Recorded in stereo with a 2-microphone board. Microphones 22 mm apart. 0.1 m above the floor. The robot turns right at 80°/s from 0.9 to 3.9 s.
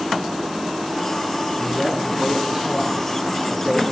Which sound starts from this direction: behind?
A man speaking, at 1.6 s.